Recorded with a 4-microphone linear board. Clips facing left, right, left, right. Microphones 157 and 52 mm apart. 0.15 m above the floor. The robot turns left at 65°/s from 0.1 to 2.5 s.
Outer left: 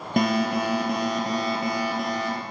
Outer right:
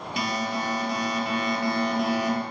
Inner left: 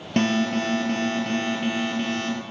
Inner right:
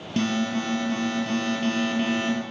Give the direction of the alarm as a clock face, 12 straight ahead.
8 o'clock.